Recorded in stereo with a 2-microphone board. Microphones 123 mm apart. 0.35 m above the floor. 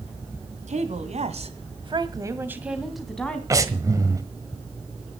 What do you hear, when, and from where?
0.7 s a woman speaking: 70° right (ahead or behind), 2.5 m; by 3.4 s 10° left (ahead or behind), 2.5 m
3.5 s breathing: 25° right (ahead or behind), 1.4 m